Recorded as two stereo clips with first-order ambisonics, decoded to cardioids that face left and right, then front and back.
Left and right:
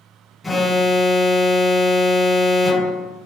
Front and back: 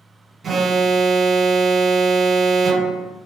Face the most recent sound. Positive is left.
turn(degrees=170)